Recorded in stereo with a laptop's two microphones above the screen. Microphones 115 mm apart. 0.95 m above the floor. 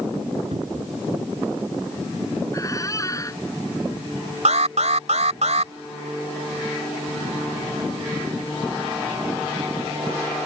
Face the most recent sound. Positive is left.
turn(degrees=-75)  # may be behind; listen again after turning